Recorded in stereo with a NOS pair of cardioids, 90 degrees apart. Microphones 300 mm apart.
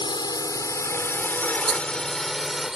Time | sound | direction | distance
0.0 | a drone | 15° left | ?
1.7 | a rattle | 35° right | ?